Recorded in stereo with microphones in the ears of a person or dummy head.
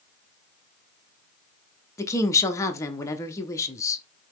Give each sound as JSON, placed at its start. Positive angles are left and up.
{"t": 2.0, "sound": "a woman speaking", "side_deg": 15, "distance_m": 0.8}